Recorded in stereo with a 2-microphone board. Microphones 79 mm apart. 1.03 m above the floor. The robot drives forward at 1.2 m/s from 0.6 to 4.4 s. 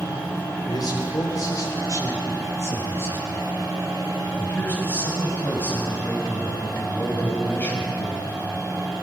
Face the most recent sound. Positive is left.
turn(degrees=25)  # may be behind; listen again after turning